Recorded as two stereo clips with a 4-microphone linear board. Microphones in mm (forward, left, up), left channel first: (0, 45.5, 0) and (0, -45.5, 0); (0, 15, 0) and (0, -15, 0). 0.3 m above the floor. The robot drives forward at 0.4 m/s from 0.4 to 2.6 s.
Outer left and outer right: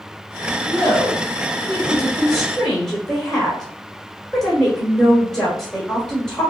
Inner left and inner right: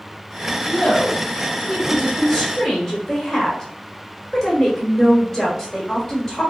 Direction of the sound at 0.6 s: 5° left (ahead or behind).